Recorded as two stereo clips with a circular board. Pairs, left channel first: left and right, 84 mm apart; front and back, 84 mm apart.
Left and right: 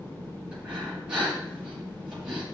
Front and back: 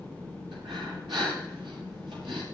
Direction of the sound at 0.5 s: 170° right.